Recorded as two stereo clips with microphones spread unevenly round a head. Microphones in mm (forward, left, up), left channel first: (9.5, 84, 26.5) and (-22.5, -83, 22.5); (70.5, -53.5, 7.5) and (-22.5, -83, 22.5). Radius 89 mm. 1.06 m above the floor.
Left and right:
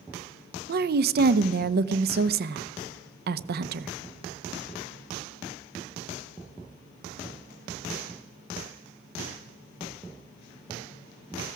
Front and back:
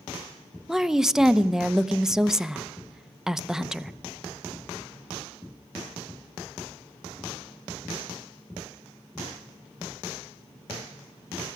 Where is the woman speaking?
75° right, 0.7 m.